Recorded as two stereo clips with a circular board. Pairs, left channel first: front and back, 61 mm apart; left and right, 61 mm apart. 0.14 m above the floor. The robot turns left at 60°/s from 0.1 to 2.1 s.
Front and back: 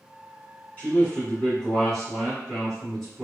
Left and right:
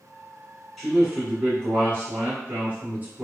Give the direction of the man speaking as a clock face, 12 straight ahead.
12 o'clock.